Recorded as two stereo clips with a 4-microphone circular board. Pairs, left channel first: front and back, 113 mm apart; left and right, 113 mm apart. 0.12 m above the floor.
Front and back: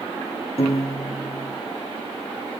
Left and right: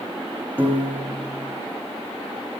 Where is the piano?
15° right, 5.5 m.